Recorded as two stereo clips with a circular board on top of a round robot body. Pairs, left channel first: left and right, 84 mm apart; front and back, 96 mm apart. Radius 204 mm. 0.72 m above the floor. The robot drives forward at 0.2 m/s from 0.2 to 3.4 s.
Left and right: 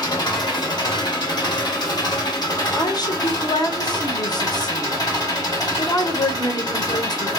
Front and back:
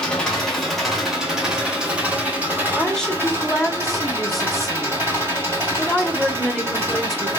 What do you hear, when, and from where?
0.0 s an engine running: 80° left, 1.2 m; by 7.4 s 120° left, 1.2 m
2.8 s a woman speaking: 75° left, 0.8 m; by 7.3 s 90° left, 0.8 m